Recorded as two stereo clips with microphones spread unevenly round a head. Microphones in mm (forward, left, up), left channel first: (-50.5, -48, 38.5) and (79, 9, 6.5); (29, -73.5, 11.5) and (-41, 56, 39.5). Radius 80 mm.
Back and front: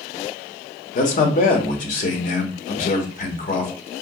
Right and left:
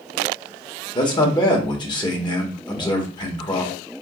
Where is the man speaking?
125° right, 1.1 m.